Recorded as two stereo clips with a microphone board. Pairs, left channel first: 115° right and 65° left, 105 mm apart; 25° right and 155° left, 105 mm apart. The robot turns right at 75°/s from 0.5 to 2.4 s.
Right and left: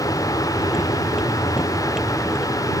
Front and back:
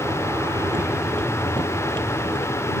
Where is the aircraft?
155° right; by 2.8 s 15° right.